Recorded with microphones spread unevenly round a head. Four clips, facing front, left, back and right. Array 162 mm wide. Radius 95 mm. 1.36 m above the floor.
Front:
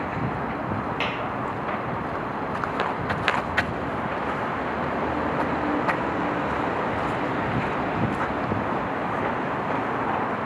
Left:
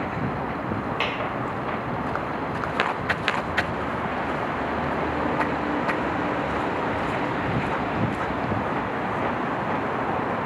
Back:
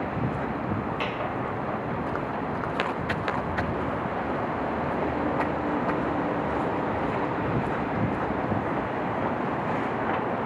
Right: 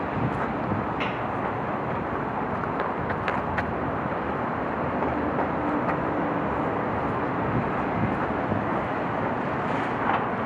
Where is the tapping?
85° left, 1.0 m.